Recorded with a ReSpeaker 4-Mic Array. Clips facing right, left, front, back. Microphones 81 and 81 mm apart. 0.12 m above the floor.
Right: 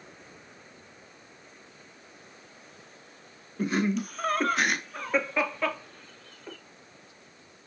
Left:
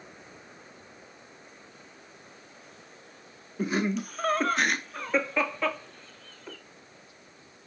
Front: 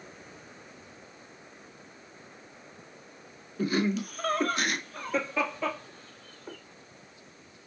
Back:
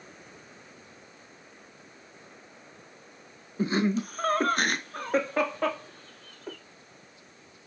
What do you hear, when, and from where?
3.6 s laughter: 170° left, 1.1 m; by 6.6 s 170° right, 2 m